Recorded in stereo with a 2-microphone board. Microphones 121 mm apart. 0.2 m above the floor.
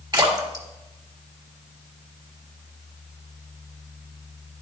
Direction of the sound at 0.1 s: 35° right (ahead or behind).